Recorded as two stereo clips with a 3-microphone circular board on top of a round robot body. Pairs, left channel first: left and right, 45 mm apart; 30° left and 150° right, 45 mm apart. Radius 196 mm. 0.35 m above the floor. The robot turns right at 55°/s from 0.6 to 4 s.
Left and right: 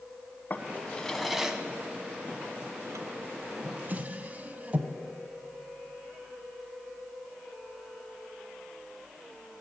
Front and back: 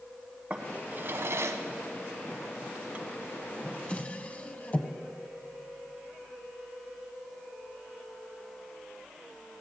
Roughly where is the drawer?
Behind left.